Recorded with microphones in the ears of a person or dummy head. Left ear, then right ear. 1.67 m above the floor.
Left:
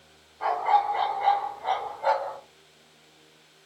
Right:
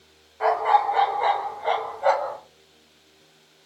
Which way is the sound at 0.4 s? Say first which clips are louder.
Right 3 dB; 35° right (ahead or behind).